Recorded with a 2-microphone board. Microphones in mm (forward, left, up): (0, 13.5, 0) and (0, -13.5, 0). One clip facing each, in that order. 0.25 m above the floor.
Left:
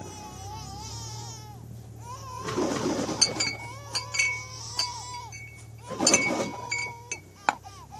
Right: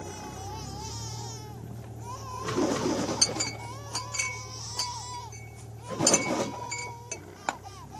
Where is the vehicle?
45° right (ahead or behind); by 8.0 s 75° right (ahead or behind).